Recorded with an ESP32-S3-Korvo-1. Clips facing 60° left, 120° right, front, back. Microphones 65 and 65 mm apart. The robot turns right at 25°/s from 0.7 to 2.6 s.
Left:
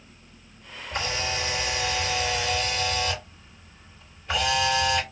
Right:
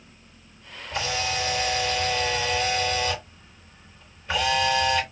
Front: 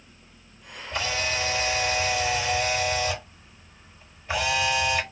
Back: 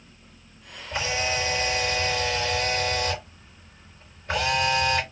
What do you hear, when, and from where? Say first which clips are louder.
0.9 s a camera shutter: right 2 dB, back 1 dB; 110° left, 3.5 m; by 5.0 s 150° left, 3.5 m